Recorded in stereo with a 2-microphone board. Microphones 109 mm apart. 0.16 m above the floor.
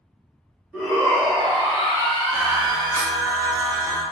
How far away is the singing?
About 1.5 m.